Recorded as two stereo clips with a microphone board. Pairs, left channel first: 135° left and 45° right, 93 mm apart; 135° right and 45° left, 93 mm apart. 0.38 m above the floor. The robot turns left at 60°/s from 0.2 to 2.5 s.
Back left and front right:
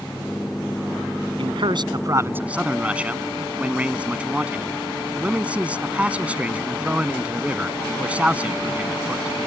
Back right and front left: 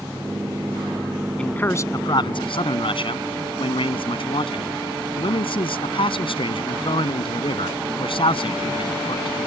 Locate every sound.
1.4 s a man speaking: 55° right; by 9.4 s 120° right